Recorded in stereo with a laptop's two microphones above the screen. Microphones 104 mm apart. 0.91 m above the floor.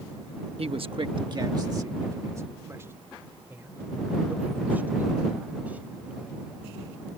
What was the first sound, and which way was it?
A man speaking, 65° right (ahead or behind).